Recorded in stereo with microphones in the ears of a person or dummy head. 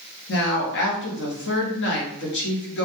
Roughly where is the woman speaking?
Left.